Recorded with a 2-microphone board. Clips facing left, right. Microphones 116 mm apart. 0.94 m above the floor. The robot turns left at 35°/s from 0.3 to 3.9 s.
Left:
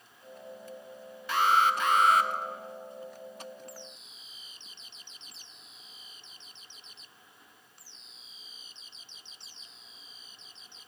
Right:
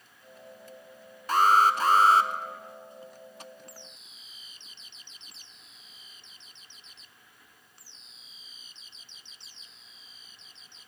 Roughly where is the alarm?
Right.